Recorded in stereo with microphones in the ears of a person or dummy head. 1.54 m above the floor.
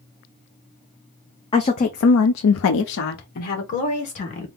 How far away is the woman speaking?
About 0.7 m.